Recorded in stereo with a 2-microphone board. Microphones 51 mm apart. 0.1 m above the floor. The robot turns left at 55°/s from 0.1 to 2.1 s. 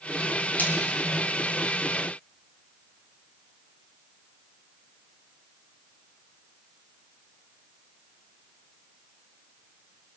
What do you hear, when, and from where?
0.6 s a splash: 35° left (ahead or behind), 4 m; by 0.7 s 45° left (ahead or behind), 4 m